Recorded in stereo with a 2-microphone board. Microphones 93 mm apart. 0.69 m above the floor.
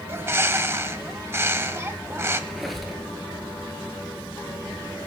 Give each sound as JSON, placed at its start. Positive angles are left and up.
{"t": 0.1, "sound": "a bird", "side_deg": -30, "distance_m": 0.7}
{"t": 2.5, "sound": "a squeak", "side_deg": 0, "distance_m": 1.7}